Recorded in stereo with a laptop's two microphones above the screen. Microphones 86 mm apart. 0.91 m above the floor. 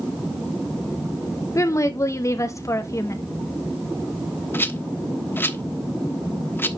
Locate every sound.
1.6 s a woman speaking: 35° left (ahead or behind), 0.8 m
4.5 s a rattle: 25° left (ahead or behind), 1.0 m